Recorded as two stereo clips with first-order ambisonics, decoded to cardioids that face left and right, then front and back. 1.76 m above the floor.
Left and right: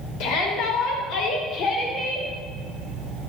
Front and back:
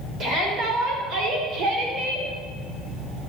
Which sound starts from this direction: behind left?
A shout, at 0.2 s.